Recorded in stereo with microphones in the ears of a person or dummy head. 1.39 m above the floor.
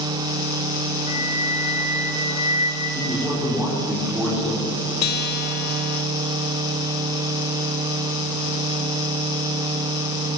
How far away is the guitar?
About 1.6 m.